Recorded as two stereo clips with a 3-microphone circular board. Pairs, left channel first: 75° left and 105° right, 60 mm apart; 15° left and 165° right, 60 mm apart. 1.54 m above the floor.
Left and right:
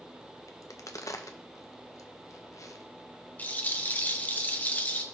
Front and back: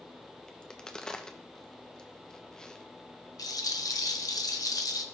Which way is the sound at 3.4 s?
15° left.